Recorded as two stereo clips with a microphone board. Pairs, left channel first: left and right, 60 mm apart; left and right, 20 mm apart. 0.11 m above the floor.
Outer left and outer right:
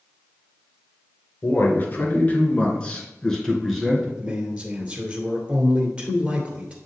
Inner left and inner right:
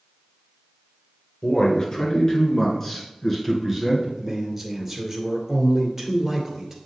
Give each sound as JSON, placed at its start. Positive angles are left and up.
{"t": 1.4, "sound": "a man speaking", "side_deg": 40, "distance_m": 2.5}
{"t": 4.2, "sound": "a man speaking", "side_deg": -25, "distance_m": 2.0}